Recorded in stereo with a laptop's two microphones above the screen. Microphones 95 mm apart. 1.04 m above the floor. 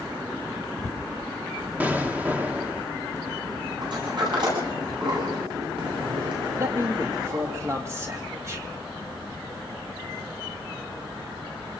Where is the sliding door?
55° right (ahead or behind), 9.5 m.